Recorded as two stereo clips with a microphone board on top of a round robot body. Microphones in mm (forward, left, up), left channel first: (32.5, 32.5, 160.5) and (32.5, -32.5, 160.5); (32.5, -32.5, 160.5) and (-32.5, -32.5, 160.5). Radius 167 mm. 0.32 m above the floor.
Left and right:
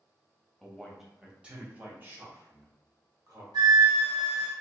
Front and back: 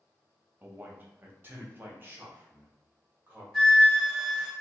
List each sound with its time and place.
0.6 s a man speaking: 165° left, 1.2 m; by 3.4 s 125° right, 2 m
3.5 s a flute: 90° right, 1.8 m